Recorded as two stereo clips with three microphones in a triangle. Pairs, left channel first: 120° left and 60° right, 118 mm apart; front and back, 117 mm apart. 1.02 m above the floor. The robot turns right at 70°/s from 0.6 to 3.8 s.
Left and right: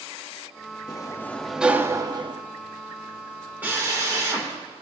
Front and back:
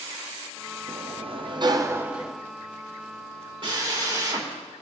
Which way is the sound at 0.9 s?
170° left.